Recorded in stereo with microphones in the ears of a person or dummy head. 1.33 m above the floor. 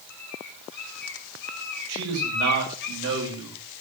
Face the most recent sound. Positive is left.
turn(degrees=-70)  # may be behind; listen again after turning